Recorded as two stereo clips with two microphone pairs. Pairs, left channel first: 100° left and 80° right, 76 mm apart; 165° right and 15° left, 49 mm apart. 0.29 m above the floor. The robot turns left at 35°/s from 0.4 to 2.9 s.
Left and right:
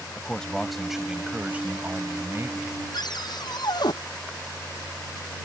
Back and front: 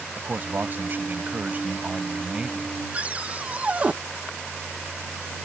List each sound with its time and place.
0.2 s a man speaking: 20° left; by 2.8 s 60° right
2.9 s a cupboard door: 80° left